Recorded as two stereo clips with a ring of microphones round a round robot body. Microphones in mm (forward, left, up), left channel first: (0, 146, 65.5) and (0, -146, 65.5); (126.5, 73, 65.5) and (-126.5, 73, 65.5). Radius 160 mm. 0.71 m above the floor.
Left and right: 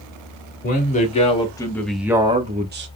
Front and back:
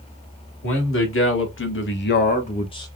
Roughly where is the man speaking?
Ahead left.